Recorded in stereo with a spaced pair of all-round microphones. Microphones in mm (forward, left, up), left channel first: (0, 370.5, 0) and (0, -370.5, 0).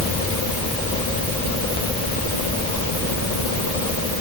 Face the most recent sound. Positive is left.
No sound to turn to.